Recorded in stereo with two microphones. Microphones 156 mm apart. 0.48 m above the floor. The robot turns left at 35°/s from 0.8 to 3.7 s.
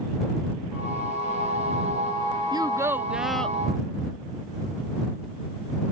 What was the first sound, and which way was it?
A child speaking, 150° right.